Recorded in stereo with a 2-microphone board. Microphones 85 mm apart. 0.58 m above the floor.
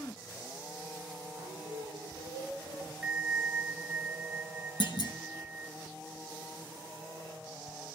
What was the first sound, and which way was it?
Singing, 75° right (ahead or behind).